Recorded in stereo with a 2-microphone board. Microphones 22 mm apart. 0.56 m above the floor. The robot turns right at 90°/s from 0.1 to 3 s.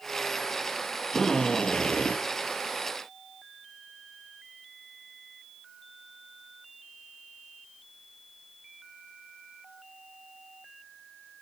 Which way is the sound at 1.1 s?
10° left.